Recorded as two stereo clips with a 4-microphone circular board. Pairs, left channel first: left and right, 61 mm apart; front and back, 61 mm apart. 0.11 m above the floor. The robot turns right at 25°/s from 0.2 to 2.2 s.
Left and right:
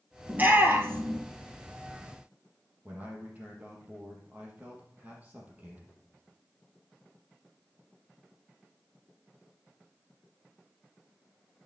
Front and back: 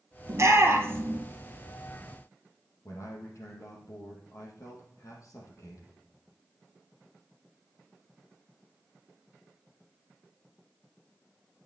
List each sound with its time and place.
0.3 s a shout: 150° right, 2 m; by 1.2 s 125° right, 2 m
2.9 s a man speaking: 30° right, 4 m